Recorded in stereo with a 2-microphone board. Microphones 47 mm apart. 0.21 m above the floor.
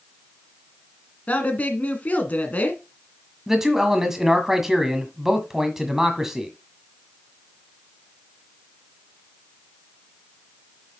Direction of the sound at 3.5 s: 10° right (ahead or behind).